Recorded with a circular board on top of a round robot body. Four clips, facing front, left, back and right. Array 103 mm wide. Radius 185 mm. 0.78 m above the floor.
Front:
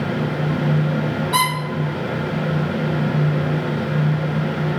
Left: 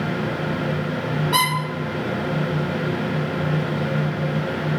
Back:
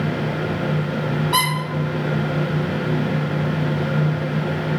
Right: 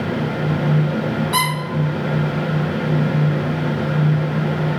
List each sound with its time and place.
1.3 s a squeak: 125° left, 0.5 m